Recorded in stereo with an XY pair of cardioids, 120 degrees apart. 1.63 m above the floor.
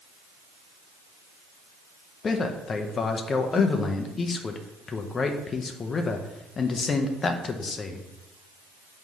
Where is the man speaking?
35° left, 0.7 m.